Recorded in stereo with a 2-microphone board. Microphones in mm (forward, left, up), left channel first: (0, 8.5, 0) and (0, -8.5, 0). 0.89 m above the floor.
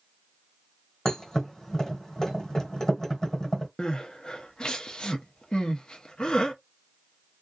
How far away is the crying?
About 0.7 m.